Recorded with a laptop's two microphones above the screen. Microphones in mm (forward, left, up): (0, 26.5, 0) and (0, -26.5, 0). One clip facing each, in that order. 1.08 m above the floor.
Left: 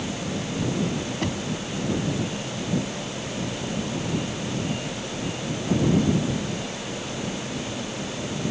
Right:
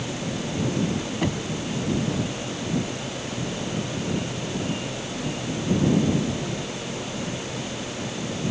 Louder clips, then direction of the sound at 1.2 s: Right 2 dB; 10° right (ahead or behind).